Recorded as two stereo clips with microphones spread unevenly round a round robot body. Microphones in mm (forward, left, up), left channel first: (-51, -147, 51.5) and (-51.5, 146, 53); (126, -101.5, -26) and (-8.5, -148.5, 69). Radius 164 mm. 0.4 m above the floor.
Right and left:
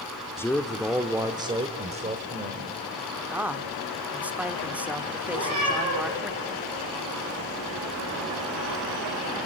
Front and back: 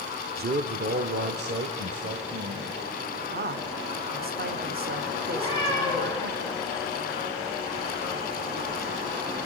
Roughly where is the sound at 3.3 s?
Behind.